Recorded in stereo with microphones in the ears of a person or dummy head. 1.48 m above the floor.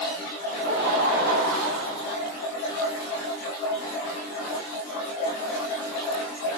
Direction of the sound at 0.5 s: 80° right.